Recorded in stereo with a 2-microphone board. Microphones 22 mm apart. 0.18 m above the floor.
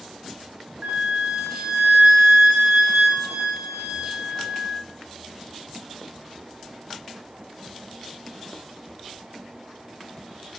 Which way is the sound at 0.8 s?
60° right (ahead or behind).